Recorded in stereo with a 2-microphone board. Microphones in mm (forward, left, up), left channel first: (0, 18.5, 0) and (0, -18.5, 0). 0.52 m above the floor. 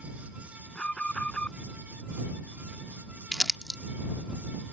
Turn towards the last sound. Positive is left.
turn(degrees=-10)  # may be behind; listen again after turning